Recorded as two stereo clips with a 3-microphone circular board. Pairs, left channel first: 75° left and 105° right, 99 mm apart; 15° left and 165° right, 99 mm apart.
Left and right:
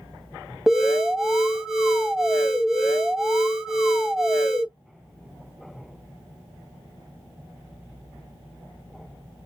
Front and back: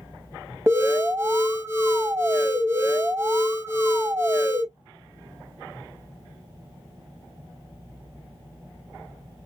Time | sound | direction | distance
0.7 | an alarm | 175° left | 1.0 m